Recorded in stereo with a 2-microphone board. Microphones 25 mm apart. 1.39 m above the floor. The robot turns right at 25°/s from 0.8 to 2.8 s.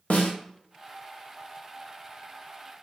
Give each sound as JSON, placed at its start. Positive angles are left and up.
{"t": 0.1, "sound": "a snare drum", "side_deg": 75, "distance_m": 0.8}